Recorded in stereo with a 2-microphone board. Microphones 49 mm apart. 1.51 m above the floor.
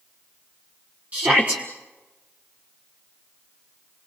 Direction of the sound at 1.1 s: 30° right (ahead or behind).